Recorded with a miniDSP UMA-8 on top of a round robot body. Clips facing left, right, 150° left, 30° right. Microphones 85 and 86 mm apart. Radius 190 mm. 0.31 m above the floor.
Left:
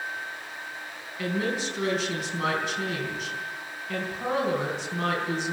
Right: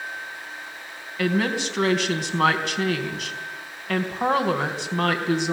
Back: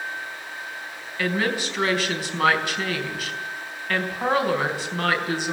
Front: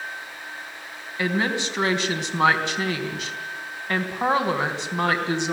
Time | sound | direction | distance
1.2 | a woman speaking | 95° right | 4 m